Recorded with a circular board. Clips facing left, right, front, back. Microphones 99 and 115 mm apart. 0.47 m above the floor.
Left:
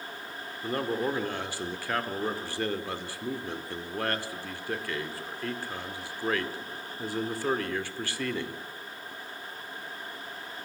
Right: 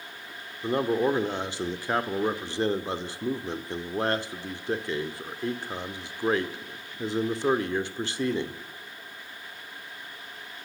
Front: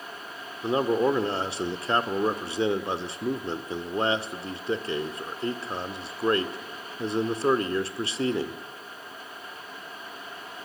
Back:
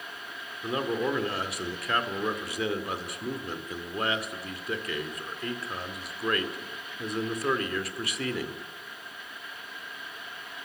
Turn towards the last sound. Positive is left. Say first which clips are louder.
# right 5 dB, front 6 dB
turn(degrees=-40)